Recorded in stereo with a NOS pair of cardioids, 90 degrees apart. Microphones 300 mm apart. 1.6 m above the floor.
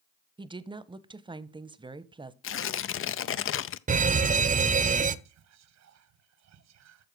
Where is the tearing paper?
45° left, 0.6 m.